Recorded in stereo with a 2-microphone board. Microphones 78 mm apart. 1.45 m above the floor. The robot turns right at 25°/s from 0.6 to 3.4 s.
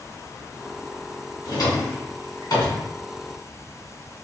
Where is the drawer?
55° left (ahead or behind), 1.2 m; by 2.9 s 50° left (ahead or behind), 1.2 m.